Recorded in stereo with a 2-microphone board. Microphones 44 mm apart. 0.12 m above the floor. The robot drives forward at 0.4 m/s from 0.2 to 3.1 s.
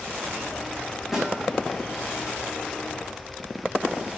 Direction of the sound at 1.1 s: 10° right (ahead or behind).